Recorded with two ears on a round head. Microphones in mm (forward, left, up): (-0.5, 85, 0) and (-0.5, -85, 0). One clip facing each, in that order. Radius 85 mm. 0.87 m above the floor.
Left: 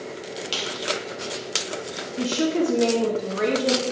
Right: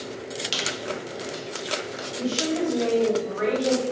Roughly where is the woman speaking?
Left.